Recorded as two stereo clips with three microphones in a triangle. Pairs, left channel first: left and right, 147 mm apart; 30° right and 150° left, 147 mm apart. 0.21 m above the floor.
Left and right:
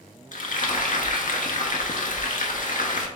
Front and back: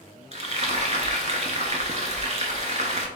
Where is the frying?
115° left, 0.6 m.